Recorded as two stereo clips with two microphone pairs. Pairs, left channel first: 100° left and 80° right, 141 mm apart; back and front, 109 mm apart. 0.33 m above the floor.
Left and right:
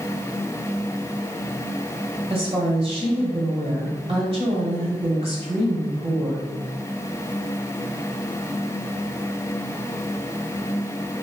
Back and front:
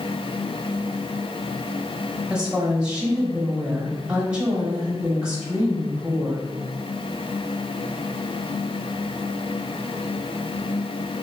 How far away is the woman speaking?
About 1.4 m.